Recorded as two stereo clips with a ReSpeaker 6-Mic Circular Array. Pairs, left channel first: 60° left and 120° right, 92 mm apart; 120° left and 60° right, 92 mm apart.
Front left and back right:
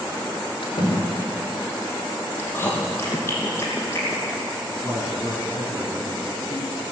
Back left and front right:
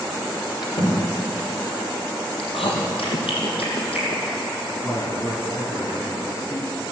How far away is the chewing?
About 2.5 m.